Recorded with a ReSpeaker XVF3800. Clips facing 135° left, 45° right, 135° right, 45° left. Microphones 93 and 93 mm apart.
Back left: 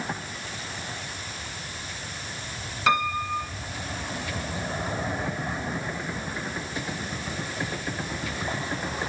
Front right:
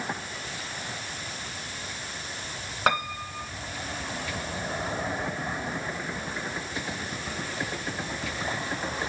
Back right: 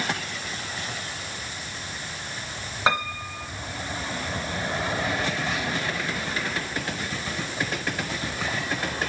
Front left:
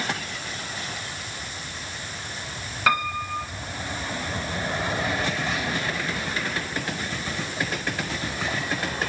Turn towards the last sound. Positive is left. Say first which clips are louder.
# back left 3 dB, front left 2 dB
turn(degrees=-75)